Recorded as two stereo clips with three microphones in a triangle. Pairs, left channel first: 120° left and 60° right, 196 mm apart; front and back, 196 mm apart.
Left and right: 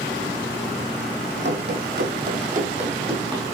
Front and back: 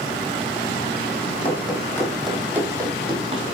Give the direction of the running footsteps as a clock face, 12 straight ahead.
2 o'clock.